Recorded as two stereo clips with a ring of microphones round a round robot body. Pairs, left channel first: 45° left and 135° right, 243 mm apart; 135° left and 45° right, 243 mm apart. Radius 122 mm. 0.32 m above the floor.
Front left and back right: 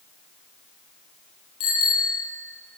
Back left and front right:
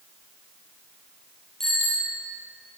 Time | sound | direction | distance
1.6 | a bicycle bell | 45° left | 6.5 m